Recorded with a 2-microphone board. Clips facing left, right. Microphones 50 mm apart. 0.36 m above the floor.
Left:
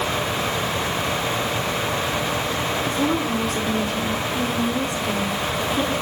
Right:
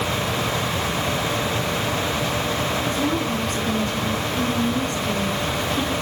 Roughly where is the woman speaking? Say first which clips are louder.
Left 1 dB; centre.